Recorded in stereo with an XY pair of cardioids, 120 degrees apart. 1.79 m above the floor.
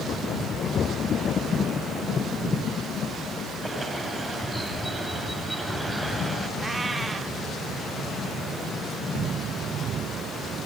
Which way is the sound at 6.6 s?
20° right.